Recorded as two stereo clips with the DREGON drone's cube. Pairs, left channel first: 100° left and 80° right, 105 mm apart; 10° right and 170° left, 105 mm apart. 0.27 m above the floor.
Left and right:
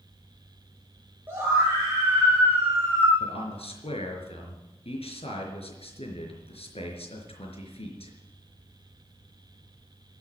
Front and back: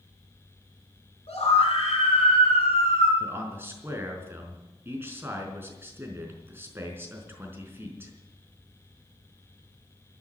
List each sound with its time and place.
1.3 s a scream: 10° right, 3 m
3.2 s a man speaking: 100° left, 4.5 m